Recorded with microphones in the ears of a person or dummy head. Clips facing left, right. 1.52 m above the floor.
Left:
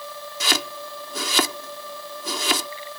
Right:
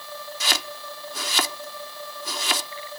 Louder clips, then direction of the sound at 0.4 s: Left 6 dB; 70° left (ahead or behind).